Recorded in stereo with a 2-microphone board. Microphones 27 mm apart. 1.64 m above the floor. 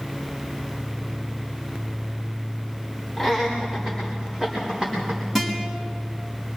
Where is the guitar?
5° right (ahead or behind), 4 m.